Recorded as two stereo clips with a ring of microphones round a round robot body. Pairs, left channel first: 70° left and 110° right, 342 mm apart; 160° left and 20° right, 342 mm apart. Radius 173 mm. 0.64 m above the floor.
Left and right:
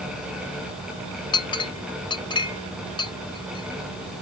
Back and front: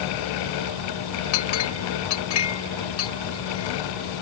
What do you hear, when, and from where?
1.3 s a clink: 145° left